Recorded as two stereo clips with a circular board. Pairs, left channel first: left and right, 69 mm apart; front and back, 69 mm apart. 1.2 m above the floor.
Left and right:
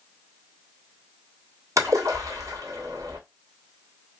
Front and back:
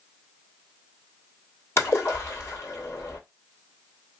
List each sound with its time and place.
1.8 s a splash: 50° right, 1.6 m